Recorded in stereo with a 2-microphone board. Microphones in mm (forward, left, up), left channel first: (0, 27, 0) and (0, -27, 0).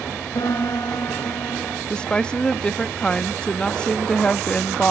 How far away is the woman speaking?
About 0.8 m.